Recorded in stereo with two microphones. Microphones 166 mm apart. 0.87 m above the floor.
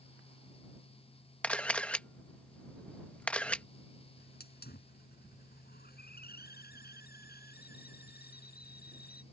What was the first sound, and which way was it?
A camera shutter, 10° left (ahead or behind).